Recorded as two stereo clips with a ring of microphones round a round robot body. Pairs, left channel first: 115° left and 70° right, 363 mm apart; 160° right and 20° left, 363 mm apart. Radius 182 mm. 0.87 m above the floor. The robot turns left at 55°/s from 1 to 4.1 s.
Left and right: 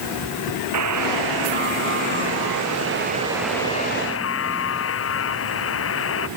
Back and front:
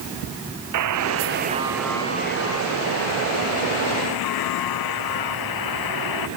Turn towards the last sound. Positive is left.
turn(degrees=170)